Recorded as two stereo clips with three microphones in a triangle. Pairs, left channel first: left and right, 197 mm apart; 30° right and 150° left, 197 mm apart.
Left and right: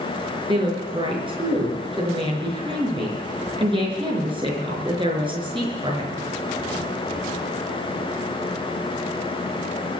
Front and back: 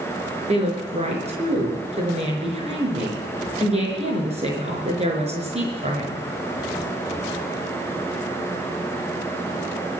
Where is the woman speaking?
155° right, 5 m.